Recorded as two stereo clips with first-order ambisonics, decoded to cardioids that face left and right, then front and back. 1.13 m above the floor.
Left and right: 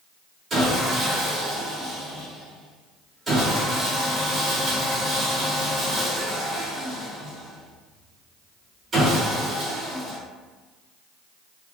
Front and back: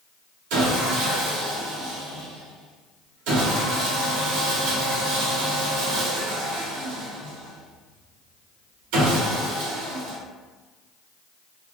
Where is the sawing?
170° right, 0.8 m.